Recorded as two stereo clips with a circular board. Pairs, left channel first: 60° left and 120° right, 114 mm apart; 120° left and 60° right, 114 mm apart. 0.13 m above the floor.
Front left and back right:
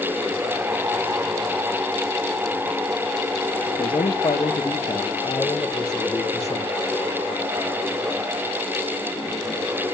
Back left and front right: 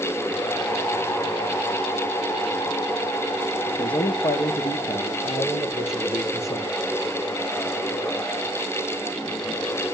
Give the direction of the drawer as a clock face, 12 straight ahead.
No drawer in this recording.